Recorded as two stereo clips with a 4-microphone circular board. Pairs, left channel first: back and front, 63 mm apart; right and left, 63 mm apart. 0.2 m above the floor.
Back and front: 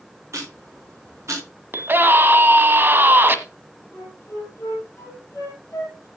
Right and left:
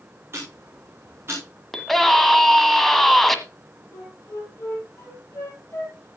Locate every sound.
0.3 s ticking: 40° left, 4 m
1.7 s a scream: 10° right, 1.3 m
3.9 s a flute: 135° right, 6 m